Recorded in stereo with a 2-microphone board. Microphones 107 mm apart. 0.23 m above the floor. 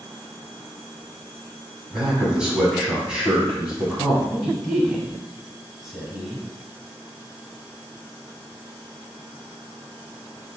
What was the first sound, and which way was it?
A man speaking, 10° right (ahead or behind).